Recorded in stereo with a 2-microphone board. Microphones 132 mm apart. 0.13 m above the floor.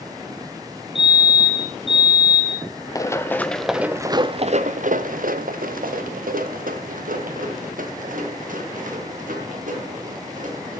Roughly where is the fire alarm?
Right.